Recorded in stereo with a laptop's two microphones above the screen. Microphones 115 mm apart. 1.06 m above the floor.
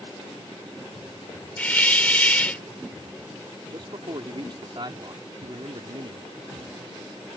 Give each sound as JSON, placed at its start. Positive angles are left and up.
{"t": 1.6, "sound": "a hiss", "side_deg": 15}
{"t": 3.7, "sound": "a man speaking", "side_deg": -50}